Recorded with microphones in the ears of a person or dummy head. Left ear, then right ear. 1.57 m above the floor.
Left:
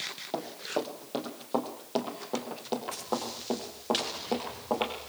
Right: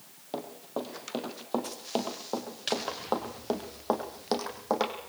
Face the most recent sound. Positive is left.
turn(degrees=-65)  # may be behind; listen again after turning